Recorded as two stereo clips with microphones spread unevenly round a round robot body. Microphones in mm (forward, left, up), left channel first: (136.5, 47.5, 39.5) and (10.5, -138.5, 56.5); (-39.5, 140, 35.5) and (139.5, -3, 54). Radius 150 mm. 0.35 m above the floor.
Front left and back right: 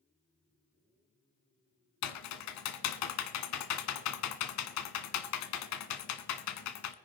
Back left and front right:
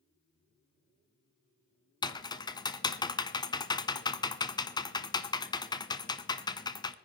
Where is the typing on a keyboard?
65° left, 0.7 m.